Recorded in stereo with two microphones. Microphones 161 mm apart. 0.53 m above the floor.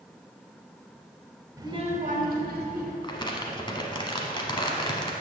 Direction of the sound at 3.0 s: 30° left (ahead or behind).